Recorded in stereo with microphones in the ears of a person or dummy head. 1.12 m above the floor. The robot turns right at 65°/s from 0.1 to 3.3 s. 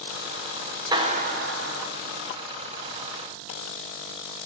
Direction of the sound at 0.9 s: 160° right.